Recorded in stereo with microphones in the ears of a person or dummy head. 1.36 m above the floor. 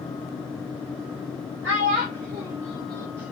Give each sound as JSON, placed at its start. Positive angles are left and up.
{"t": 1.6, "sound": "a child speaking", "side_deg": -60, "distance_m": 1.1}